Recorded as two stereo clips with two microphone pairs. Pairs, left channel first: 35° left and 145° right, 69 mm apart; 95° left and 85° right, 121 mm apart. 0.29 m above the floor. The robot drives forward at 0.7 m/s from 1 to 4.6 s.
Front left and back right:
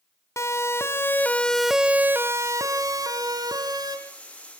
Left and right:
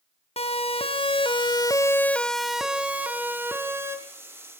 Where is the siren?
80° left, 2 m; by 4.0 s 150° right, 3.5 m.